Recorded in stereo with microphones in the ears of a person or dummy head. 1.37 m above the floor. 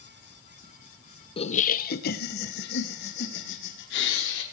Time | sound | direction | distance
1.4 | laughter | 30° left (ahead or behind) | 0.6 m